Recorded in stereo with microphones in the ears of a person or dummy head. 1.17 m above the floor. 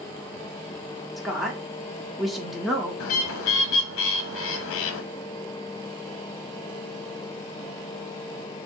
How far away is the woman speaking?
About 1.2 m.